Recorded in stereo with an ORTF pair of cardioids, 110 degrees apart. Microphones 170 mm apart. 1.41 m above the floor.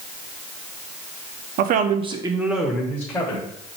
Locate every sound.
1.6 s a man speaking: 70° right, 0.5 m; by 3.5 s 20° left, 1.1 m